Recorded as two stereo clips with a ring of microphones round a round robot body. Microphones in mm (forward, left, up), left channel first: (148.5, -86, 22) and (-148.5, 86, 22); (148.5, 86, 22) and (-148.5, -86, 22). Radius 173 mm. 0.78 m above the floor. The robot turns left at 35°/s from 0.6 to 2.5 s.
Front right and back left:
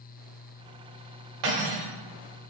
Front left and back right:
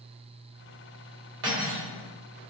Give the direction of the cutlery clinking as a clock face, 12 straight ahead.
7 o'clock.